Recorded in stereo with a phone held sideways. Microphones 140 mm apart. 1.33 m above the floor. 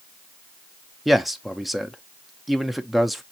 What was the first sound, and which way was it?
A man speaking, centre (ahead or behind).